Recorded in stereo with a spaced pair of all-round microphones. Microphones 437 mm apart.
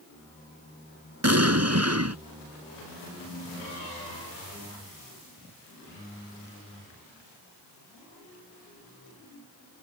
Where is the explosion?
35° right (ahead or behind).